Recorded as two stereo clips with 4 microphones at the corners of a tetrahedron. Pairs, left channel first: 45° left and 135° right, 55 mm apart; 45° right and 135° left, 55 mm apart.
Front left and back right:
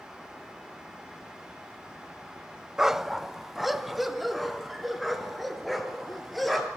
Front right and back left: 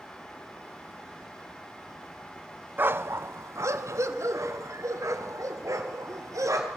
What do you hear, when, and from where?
2.8 s a dog barking: 145° left, 0.6 m; by 6.7 s 135° left, 3 m